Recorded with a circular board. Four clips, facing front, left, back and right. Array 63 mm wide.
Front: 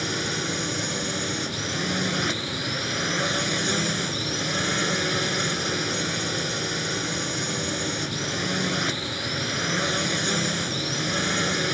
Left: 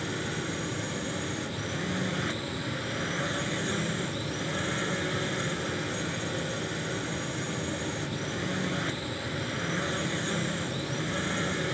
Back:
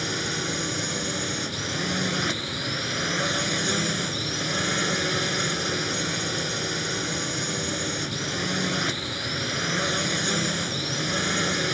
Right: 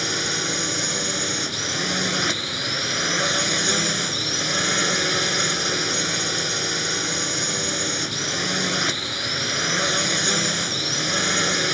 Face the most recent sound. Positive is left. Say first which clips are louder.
# right 6 dB, front 1 dB
turn(degrees=-85)